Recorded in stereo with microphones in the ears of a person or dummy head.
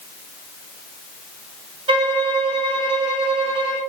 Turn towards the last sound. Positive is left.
turn(degrees=-40)  # may be behind; listen again after turning